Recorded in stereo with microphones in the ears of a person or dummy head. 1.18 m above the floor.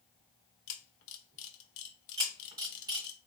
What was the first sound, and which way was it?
A camera shutter, 65° left (ahead or behind).